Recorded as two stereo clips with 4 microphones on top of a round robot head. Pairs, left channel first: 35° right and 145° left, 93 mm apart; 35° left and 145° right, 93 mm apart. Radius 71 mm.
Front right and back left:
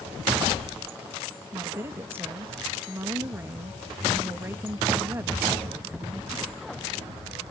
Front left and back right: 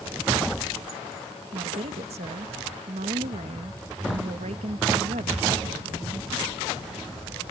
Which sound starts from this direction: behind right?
A woman speaking, at 1.5 s.